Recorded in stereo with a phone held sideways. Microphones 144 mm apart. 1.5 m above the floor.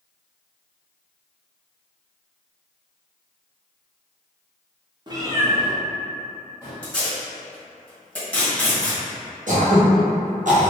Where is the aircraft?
No aircraft in this recording.